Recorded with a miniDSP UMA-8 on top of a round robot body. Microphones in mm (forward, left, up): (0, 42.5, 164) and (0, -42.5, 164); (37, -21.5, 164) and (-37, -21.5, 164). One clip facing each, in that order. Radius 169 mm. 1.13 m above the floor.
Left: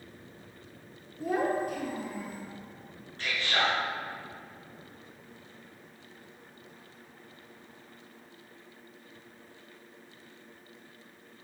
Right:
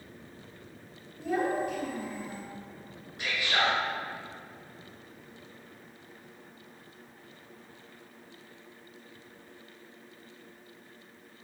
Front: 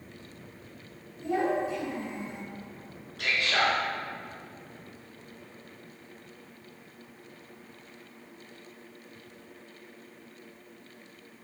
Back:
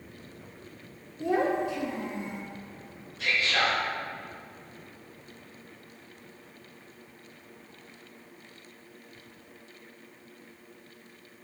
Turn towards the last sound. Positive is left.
turn(degrees=-15)